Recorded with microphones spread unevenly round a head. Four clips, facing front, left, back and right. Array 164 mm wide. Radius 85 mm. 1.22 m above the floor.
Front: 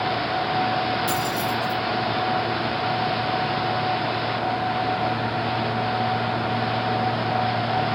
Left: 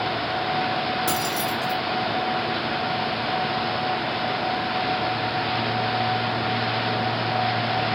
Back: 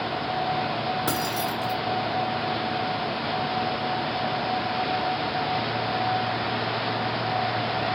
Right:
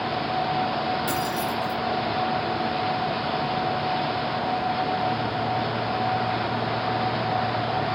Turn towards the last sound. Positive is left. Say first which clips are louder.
# left 1 dB, front 3 dB
turn(degrees=165)